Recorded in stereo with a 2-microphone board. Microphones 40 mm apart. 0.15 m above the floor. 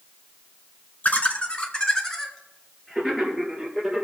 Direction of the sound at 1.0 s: 40° left (ahead or behind).